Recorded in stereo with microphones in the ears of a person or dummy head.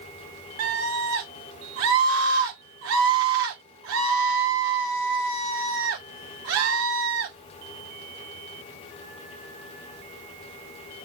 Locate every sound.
0.6 s a scream: 80° right, 1.8 m